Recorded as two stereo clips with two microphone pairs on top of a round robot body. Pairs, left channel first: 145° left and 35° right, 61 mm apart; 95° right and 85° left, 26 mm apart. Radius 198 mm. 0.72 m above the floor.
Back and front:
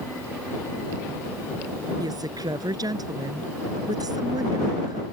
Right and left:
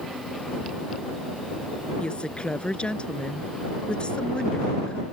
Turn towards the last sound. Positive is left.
turn(degrees=-45)